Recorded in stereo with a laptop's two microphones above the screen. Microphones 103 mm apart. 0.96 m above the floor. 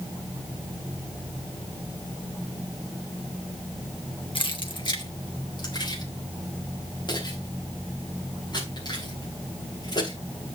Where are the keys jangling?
55° left (ahead or behind), 1.1 m; by 10.2 s 40° left (ahead or behind), 9 m.